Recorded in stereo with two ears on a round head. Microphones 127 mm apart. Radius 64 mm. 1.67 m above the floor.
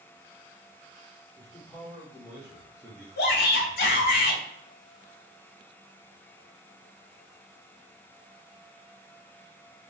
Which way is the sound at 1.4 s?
20° left (ahead or behind).